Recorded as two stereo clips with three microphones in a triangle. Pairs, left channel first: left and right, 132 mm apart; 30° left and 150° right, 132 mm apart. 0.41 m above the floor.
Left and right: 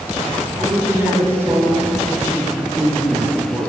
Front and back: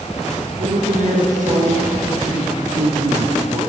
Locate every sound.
0.6 s a man speaking: 160° right, 5.5 m